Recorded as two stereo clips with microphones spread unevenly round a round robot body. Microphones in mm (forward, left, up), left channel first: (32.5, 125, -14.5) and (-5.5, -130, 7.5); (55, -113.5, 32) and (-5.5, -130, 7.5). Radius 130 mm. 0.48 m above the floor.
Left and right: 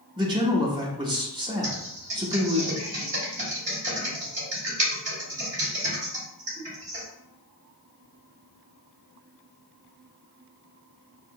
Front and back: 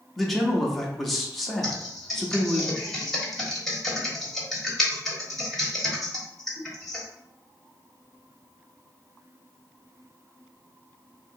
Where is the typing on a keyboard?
120° right, 1.4 m.